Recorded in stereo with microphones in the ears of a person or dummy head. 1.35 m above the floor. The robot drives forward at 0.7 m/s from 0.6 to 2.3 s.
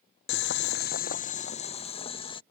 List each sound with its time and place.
0.3 s boiling: 50° left (ahead or behind); by 2.4 s 20° left (ahead or behind)